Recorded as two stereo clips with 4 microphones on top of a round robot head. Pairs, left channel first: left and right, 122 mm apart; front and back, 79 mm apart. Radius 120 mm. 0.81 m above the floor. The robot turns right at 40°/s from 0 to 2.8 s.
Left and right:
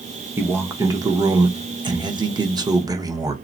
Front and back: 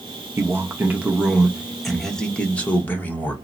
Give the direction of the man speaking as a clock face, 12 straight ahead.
5 o'clock.